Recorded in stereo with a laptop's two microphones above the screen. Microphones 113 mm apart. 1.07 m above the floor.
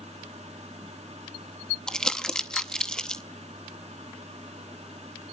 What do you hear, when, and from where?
0.0 s a fan: 80° right, 2 m
1.9 s crumpling: 5° left (ahead or behind), 0.7 m